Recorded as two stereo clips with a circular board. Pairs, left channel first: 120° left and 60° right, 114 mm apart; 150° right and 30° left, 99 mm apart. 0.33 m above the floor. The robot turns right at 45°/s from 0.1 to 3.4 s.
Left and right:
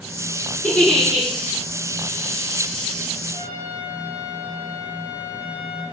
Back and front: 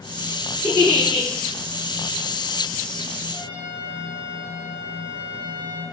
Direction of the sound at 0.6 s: 160° right.